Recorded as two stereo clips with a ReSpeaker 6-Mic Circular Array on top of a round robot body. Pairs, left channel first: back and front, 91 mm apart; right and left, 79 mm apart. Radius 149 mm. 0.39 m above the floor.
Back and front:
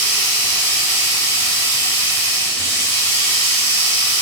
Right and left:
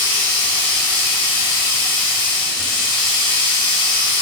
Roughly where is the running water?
Right.